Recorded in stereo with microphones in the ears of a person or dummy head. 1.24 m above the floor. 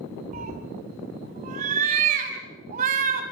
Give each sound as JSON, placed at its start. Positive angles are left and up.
{"t": 0.3, "sound": "a cat meowing", "side_deg": -45, "distance_m": 3.0}